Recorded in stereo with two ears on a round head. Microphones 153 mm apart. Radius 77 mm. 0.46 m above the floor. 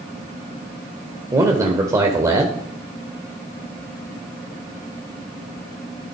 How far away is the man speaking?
About 1.6 m.